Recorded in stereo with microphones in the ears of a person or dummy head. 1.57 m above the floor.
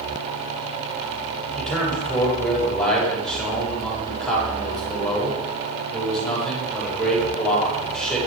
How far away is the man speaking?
About 7.5 m.